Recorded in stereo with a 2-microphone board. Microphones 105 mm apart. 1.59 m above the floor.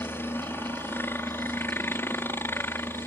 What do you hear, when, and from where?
0.0 s a helicopter: 20° left (ahead or behind)